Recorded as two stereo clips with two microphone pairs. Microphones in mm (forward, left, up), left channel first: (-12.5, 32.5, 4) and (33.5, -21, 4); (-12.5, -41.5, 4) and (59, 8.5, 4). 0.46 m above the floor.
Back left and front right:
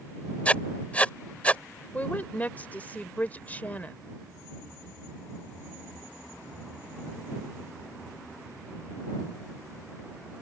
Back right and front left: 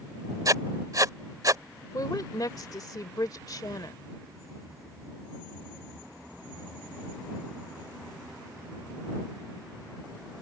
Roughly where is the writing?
Ahead left.